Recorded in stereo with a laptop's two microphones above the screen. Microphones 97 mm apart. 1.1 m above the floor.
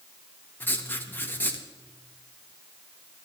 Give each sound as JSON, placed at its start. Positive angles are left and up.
{"t": 0.6, "sound": "writing", "side_deg": 20, "distance_m": 1.4}